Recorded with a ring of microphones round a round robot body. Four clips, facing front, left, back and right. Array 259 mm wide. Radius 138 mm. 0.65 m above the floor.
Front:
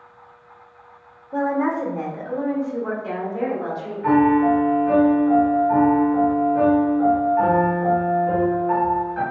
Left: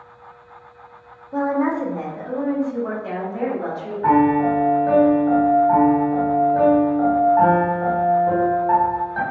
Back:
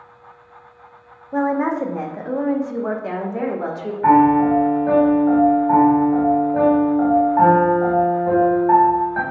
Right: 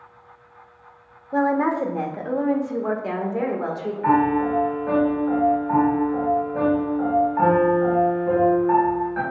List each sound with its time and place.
1.3 s a woman speaking: 125° right, 1.2 m; by 3.9 s 150° right, 2 m
4.0 s a piano: 160° left, 2.5 m